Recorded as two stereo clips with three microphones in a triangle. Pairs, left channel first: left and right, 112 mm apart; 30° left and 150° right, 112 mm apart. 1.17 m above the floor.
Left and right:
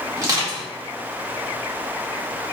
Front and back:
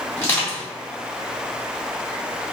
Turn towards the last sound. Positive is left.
turn(degrees=-40)